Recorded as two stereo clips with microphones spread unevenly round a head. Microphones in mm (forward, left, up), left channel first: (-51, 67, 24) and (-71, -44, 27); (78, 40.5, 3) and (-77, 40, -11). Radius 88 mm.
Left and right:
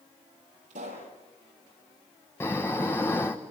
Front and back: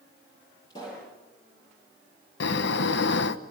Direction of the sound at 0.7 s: 70° right.